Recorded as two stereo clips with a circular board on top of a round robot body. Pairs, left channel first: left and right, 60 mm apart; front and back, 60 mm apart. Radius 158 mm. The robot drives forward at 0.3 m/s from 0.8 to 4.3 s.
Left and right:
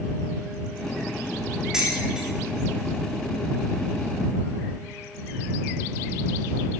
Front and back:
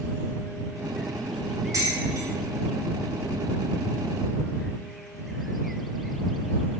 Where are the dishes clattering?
170° right, 5.5 m.